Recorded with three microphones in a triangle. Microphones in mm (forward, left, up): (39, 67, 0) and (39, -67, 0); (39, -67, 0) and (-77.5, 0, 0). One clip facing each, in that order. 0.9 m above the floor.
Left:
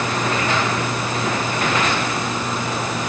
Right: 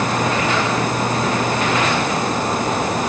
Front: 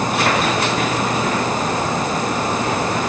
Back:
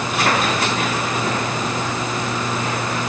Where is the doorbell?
I don't hear a doorbell.